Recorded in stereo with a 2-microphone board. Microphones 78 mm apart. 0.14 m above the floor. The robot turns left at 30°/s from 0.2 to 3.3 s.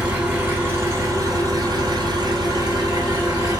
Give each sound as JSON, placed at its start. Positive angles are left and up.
{"t": 0.0, "sound": "an engine running", "azimuth_deg": -20, "distance_m": 1.2}